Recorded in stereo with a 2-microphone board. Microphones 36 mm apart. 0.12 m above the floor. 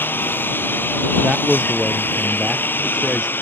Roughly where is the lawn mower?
Left.